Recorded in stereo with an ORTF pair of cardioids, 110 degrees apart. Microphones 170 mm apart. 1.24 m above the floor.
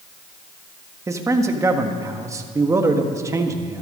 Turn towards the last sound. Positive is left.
turn(degrees=-20)